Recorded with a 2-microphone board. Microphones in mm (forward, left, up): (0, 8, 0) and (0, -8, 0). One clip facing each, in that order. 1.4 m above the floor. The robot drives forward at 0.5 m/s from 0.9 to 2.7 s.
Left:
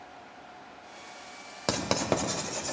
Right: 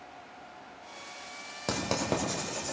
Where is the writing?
25° left (ahead or behind), 1.4 m; by 2.7 s 20° left (ahead or behind), 1.7 m.